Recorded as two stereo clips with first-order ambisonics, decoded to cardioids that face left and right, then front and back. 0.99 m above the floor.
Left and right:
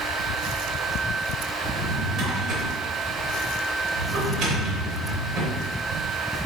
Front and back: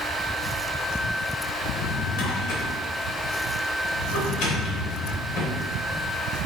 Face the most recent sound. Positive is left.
turn(degrees=-30)